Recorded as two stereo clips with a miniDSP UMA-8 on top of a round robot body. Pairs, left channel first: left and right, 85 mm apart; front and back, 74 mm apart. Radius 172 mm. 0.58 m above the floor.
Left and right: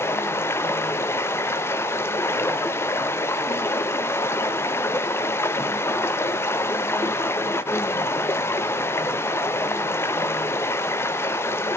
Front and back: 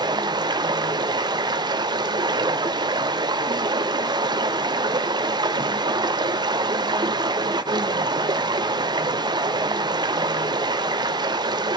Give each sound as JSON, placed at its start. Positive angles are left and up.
{"t": 0.0, "sound": "running water", "azimuth_deg": 150, "distance_m": 0.9}